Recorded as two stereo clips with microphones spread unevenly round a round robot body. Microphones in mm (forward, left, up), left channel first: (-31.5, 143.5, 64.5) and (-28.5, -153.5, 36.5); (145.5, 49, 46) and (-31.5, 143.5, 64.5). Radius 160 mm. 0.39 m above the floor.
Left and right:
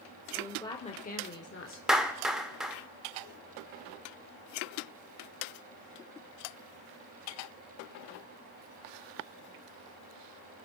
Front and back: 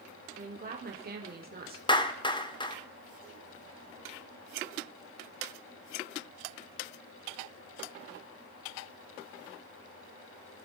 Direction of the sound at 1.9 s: 15° right.